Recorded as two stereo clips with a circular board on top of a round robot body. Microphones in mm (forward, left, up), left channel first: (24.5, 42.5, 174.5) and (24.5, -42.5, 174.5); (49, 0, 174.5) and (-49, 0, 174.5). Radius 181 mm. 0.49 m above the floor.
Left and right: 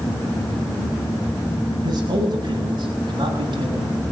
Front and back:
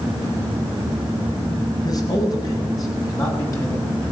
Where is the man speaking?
50° right, 6.5 m; by 4.0 s 60° right, 8 m.